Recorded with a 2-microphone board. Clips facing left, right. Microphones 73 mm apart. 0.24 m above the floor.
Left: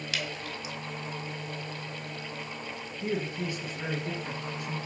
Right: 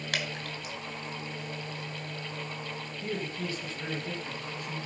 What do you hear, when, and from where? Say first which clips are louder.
0.1 s dripping: right 1 dB; 55° right (ahead or behind), 3.5 m
3.0 s a man speaking: left 4 dB; 20° left (ahead or behind), 3 m